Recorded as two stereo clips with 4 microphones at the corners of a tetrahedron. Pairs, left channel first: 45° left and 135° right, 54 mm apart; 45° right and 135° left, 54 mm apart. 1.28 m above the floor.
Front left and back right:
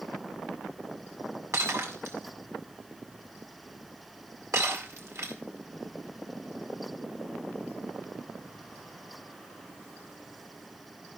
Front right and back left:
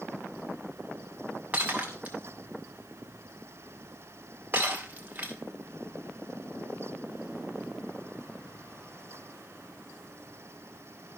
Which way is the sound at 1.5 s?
165° right.